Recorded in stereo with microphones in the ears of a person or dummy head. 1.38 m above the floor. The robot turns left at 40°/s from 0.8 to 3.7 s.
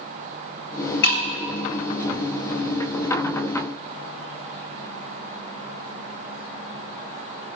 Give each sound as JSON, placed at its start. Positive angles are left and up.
{"t": 1.0, "sound": "breaking glass", "side_deg": 60, "distance_m": 1.5}